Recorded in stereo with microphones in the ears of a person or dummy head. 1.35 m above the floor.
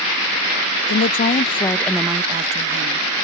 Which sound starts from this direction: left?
A woman speaking, at 0.9 s.